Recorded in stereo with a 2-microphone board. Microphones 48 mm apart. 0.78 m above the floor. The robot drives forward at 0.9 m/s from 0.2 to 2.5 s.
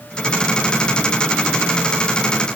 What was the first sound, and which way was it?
Only background noise.